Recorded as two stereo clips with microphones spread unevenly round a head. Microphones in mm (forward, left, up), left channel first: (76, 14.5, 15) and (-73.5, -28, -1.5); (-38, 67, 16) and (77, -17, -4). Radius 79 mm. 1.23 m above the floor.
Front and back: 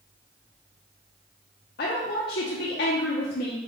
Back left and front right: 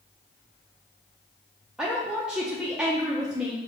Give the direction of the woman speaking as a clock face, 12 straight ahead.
10 o'clock.